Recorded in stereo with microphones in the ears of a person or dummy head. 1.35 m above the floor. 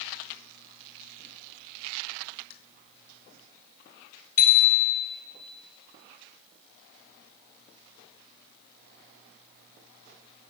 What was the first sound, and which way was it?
A bicycle bell, 55° left (ahead or behind).